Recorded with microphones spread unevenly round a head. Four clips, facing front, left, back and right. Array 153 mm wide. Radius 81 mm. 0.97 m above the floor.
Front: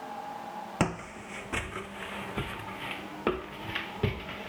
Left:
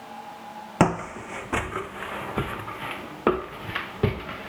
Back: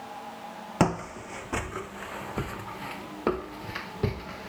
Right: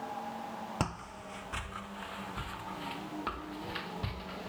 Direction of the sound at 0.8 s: 110° left.